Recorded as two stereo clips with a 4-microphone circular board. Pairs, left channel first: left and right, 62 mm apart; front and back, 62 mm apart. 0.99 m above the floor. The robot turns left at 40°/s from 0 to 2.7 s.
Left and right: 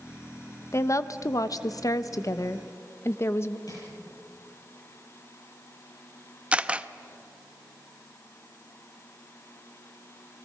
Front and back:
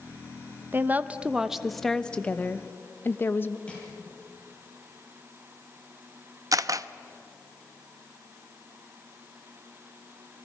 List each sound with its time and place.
0.7 s a woman speaking: 130° left, 0.8 m; by 3.6 s 50° left, 0.8 m
3.7 s crushing: 70° left, 8.5 m
6.5 s a camera shutter: 160° right, 0.5 m